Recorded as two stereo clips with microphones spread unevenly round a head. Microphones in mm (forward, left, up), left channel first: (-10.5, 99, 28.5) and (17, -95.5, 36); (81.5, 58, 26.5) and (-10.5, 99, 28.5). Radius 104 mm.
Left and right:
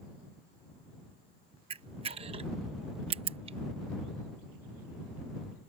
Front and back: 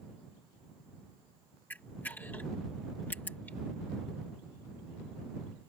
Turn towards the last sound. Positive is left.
turn(degrees=-85)